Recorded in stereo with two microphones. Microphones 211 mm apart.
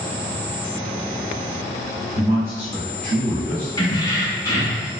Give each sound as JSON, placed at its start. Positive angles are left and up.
{"t": 2.1, "sound": "a man speaking", "side_deg": -20, "distance_m": 1.7}
{"t": 3.8, "sound": "keys jangling", "side_deg": 20, "distance_m": 0.8}